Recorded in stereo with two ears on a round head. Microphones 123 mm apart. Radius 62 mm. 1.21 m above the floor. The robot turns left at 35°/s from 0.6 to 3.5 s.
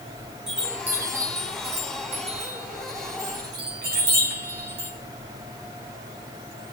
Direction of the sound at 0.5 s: 5° right (ahead or behind).